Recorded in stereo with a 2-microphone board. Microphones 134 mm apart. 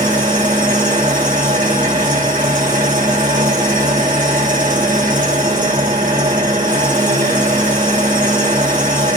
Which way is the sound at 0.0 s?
80° right.